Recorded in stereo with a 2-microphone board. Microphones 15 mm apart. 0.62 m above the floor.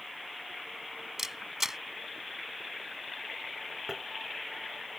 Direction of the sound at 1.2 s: 30° right (ahead or behind).